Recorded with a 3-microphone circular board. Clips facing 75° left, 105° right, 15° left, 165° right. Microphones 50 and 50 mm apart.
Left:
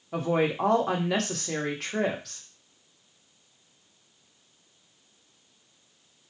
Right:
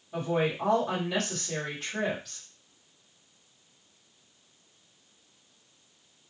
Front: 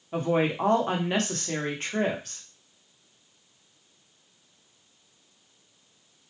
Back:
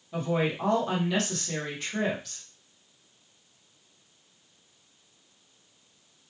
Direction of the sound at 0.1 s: 65° left.